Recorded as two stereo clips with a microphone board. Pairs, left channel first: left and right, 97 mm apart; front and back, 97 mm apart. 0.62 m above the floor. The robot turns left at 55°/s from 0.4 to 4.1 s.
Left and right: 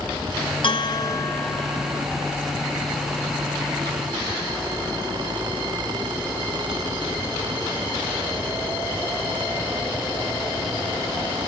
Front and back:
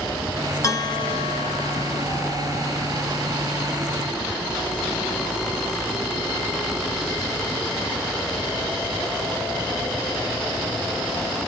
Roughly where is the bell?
Ahead left.